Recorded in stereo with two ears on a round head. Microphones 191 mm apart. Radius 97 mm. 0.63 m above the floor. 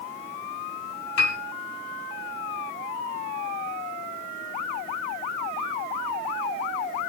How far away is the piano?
About 3.5 m.